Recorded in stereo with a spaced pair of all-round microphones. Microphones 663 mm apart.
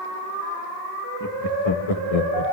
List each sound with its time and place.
1.2 s laughter: 30° left (ahead or behind), 1.4 m; by 2.4 s 65° left (ahead or behind), 1.3 m